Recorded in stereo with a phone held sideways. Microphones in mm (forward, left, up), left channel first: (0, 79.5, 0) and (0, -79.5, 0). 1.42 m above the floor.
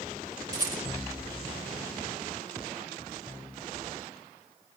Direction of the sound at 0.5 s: 25° right (ahead or behind).